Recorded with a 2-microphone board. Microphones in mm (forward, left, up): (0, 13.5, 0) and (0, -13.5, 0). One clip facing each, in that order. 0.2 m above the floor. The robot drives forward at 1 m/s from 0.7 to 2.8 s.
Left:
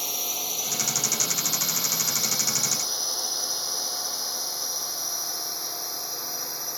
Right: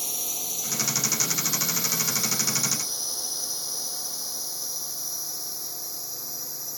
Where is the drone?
25° left (ahead or behind); by 6.8 s 40° left (ahead or behind).